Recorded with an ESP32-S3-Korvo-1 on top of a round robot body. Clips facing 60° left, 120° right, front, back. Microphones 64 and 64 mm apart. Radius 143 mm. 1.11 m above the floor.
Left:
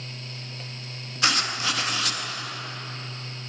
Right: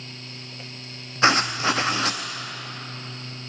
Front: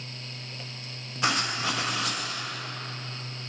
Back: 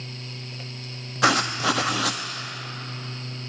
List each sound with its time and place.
1.2 s writing: straight behind, 0.6 m